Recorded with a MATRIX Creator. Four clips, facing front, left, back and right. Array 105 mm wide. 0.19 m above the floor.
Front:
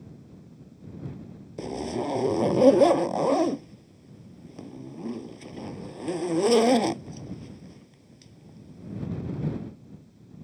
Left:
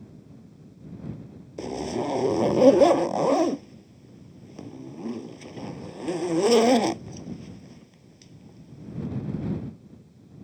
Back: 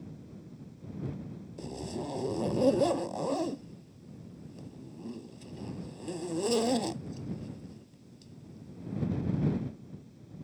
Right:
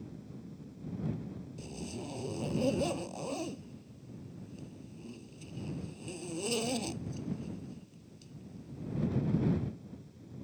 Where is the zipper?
55° left.